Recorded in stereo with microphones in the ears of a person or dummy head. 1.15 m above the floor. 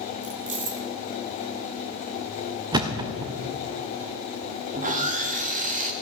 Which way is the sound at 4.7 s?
30° right (ahead or behind).